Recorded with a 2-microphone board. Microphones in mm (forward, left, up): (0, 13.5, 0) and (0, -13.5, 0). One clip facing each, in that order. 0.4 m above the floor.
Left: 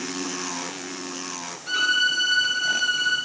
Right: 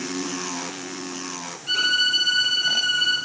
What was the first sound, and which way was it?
A violin, 35° left (ahead or behind).